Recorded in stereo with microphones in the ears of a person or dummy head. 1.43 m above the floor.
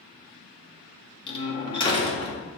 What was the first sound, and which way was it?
A door slam, 35° left (ahead or behind).